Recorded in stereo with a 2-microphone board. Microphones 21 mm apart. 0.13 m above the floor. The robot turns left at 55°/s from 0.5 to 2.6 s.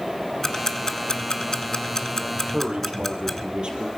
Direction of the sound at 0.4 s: 25° left (ahead or behind).